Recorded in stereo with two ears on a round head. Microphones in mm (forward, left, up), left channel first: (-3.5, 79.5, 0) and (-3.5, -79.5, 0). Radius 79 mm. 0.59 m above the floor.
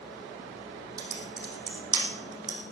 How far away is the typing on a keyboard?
About 4 m.